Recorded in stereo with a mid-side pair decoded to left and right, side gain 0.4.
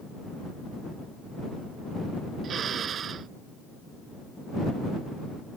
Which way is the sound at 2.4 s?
60° right.